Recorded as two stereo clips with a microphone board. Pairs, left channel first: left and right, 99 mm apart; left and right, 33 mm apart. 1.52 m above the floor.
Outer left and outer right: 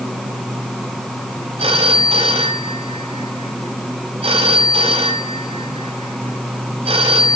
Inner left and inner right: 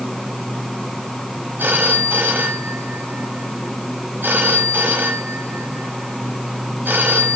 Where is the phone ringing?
80° right, 5.5 m.